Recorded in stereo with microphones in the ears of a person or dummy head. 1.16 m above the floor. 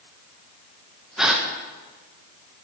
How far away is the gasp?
About 0.9 m.